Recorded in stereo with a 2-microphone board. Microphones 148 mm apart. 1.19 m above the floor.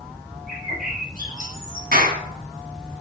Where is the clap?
80° right, 7.5 m.